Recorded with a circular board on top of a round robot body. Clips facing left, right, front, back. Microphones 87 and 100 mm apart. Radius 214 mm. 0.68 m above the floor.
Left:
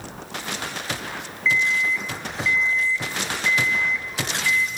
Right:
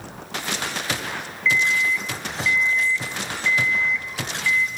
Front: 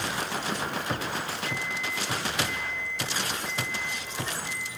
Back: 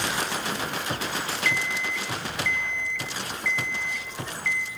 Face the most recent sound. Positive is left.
turn(degrees=160)